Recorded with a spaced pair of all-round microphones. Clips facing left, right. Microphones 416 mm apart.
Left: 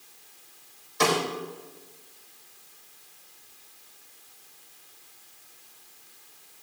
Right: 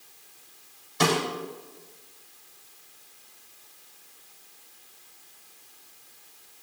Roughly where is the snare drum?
Right.